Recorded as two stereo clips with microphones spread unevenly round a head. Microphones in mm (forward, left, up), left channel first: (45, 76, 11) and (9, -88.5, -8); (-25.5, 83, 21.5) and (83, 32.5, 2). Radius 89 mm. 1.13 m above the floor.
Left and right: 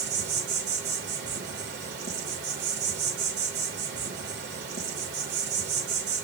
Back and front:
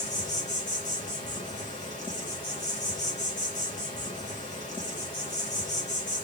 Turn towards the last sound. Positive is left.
turn(degrees=-135)